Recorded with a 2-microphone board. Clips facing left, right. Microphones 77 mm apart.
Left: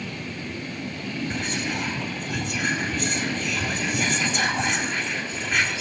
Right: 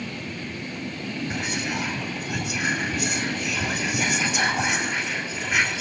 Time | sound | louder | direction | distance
1.3 | whispering | right 1 dB | 5° right (ahead or behind) | 1.4 m